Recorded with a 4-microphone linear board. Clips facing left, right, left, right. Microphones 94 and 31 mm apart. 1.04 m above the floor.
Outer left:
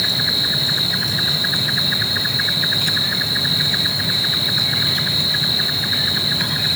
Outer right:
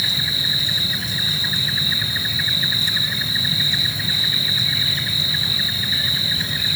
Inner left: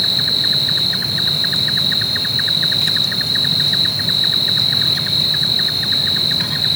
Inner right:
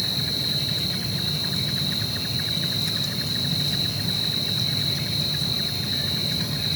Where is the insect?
70° left (ahead or behind).